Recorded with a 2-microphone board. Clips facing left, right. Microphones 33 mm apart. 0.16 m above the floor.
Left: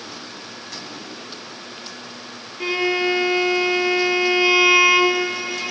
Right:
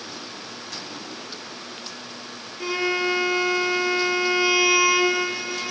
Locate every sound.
2.6 s a violin: 30° left (ahead or behind), 1.5 m